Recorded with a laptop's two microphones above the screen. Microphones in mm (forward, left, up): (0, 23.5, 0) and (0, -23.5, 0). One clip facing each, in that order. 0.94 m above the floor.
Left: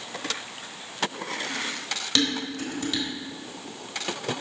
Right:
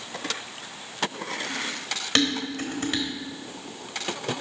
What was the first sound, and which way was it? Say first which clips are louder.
Dishes clattering: right 2 dB; 40° right (ahead or behind).